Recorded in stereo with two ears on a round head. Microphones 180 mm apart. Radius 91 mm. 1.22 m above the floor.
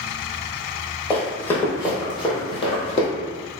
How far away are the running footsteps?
About 1.8 m.